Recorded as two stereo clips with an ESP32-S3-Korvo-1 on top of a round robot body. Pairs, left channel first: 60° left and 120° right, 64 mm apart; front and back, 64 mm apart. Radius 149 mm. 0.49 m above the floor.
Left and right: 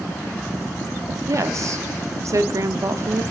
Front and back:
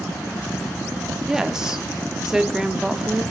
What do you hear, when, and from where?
1.3 s a woman speaking: 100° right, 1.1 m